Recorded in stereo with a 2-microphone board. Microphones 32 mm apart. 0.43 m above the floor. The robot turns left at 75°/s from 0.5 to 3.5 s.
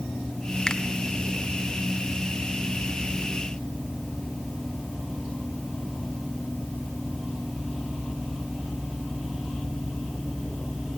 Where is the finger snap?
20° left (ahead or behind), 1.3 m; by 0.8 s 25° left (ahead or behind), 1.3 m.